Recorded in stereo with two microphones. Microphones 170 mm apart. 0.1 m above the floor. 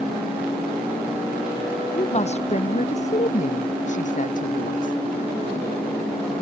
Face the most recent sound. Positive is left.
turn(degrees=55)  # may be behind; listen again after turning